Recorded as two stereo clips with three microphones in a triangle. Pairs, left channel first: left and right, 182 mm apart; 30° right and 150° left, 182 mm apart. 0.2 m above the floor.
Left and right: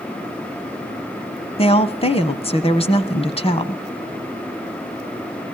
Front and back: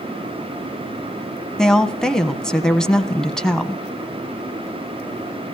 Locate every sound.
1.6 s a woman speaking: 55° left, 1.2 m